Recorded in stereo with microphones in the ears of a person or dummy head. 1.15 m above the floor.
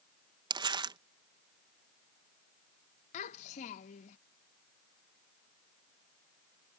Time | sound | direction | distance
0.5 | crumpling | 20° right (ahead or behind) | ?
3.1 | a child speaking | 40° left (ahead or behind) | ?